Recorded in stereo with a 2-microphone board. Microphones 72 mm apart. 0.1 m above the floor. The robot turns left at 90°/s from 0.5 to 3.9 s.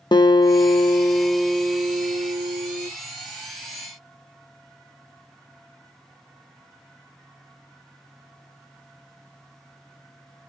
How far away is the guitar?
About 0.8 m.